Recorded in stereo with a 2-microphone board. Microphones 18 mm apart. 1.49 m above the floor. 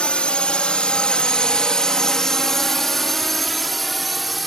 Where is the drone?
85° left; by 4.5 s centre (ahead or behind).